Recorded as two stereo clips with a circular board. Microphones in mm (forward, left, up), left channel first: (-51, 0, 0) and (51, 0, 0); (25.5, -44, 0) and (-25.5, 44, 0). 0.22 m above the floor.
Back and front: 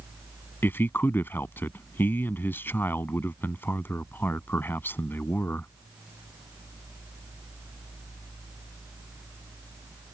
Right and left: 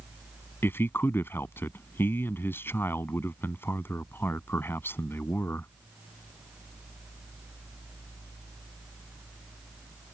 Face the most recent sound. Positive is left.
turn(degrees=-115)